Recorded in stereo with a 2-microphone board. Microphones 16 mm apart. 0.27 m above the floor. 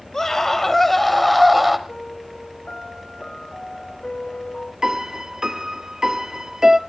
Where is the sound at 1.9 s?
70° left (ahead or behind), 6 m.